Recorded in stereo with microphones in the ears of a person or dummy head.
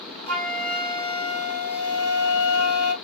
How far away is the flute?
About 2 m.